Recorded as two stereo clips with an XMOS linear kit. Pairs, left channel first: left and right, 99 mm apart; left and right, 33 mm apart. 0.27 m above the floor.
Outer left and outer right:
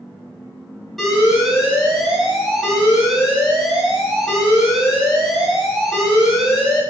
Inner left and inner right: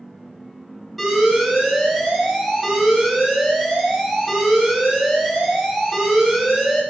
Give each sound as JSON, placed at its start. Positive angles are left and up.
{"t": 1.0, "sound": "an alarm", "side_deg": 0, "distance_m": 2.5}